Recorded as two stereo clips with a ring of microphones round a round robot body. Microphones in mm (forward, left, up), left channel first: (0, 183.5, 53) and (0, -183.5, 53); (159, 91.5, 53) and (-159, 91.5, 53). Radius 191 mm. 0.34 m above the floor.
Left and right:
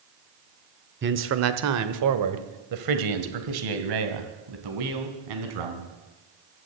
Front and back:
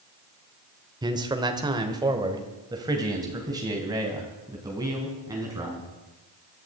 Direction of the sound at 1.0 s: 115° right.